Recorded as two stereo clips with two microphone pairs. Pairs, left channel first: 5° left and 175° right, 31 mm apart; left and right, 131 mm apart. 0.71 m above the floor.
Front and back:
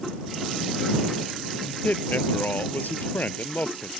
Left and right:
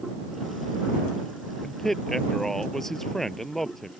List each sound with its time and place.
1.6 s a man speaking: straight ahead